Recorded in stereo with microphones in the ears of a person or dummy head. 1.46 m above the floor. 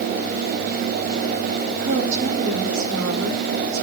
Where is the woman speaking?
65° right (ahead or behind), 4.5 m; by 3.9 s 80° right, 5.5 m.